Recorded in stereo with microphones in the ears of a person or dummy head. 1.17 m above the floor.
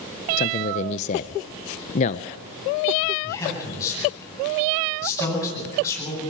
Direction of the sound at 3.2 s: 20° left (ahead or behind).